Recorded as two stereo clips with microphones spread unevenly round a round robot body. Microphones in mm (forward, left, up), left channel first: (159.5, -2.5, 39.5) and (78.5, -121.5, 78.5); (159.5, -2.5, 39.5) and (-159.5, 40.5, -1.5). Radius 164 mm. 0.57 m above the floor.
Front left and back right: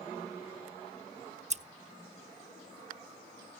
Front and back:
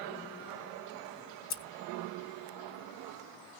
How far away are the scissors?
About 0.7 m.